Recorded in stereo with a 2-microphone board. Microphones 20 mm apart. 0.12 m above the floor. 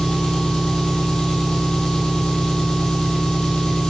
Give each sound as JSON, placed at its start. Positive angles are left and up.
{"t": 0.0, "sound": "an engine running", "side_deg": 65, "distance_m": 1.9}